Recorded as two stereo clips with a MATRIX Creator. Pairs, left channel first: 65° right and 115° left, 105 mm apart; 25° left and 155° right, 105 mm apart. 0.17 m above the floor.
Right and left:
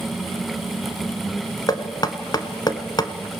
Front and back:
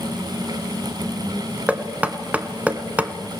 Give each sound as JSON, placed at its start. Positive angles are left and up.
{"t": 1.7, "sound": "knocking", "azimuth_deg": -90, "distance_m": 0.9}